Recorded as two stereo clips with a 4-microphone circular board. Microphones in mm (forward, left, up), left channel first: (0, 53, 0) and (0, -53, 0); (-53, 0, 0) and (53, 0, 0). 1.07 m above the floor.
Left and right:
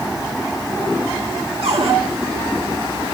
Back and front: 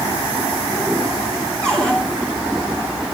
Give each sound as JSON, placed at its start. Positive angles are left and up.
{"t": 1.6, "sound": "a cupboard door", "azimuth_deg": -95, "distance_m": 3.5}